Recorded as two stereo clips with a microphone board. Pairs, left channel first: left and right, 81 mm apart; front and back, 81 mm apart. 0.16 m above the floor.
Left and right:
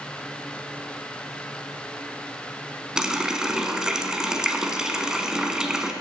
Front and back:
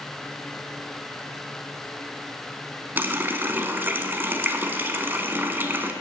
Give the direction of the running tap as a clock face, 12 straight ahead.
5 o'clock.